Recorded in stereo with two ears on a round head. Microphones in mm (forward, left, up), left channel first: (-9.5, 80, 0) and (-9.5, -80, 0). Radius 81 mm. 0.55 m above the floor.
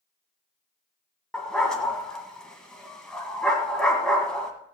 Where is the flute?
I don't hear a flute.